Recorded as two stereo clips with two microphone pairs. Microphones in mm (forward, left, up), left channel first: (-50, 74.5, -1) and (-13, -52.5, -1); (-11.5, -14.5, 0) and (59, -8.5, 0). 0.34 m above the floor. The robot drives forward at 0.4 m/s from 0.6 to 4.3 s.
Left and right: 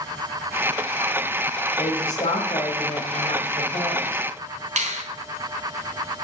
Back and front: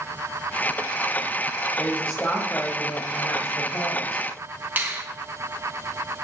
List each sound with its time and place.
1.8 s a woman speaking: 115° left, 1.8 m; by 4.2 s 145° left, 2.5 m
4.8 s a finger snap: 60° right, 3 m